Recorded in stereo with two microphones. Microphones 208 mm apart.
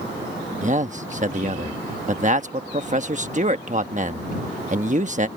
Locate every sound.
0.6 s a man speaking: 40° right (ahead or behind)